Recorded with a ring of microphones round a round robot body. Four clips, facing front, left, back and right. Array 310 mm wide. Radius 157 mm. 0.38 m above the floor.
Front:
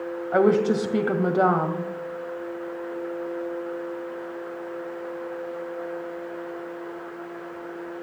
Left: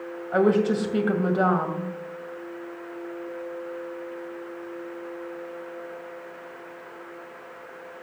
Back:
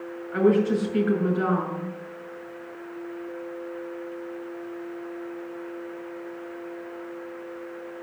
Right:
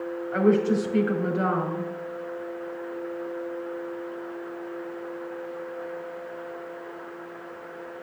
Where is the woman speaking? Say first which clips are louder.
Left 1 dB, front 1 dB; 25° left, 2 m.